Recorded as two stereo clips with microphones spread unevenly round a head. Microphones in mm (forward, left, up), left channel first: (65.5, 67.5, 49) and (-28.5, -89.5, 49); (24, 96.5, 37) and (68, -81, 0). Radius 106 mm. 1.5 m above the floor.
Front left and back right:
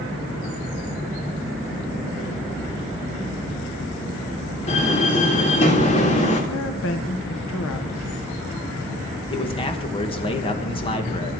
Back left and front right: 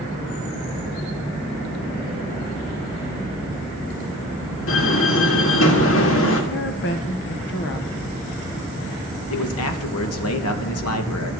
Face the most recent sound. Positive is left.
turn(degrees=125)